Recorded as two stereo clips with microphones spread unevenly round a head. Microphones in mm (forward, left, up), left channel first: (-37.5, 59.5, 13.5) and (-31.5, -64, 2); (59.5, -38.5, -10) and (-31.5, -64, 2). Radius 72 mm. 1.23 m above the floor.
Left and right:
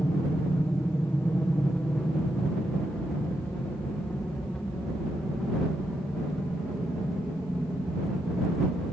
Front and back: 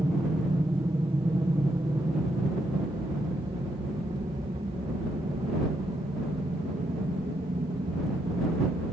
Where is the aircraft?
160° left; by 8.9 s straight behind.